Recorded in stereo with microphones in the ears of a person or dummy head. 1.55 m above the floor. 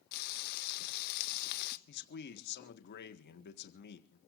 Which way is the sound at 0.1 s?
50° left (ahead or behind).